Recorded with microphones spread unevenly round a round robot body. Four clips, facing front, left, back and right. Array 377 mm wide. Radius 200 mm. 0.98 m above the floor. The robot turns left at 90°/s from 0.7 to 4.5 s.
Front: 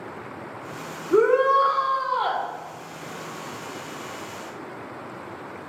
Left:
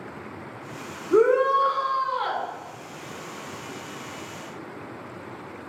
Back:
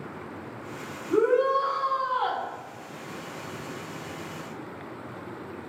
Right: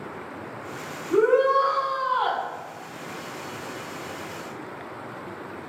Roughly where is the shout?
Left.